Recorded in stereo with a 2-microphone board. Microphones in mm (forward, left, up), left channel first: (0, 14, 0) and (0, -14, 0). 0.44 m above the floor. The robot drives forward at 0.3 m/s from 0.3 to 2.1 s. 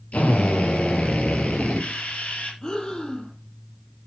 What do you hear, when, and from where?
0.1 s a drill: 60° left (ahead or behind), 6 m; by 2.5 s 55° left (ahead or behind), 6.5 m
2.6 s breathing: 25° left (ahead or behind), 3 m